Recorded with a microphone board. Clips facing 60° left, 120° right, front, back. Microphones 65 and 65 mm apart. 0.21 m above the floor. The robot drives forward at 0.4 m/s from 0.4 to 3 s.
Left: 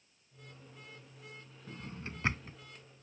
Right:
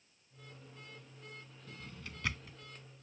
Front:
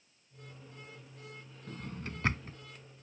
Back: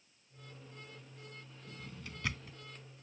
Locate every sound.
1.7 s a drawer: 15° left; by 2.6 s 25° left